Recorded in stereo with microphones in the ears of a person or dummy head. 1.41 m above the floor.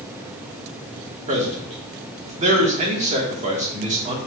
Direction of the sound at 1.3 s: 35° right (ahead or behind).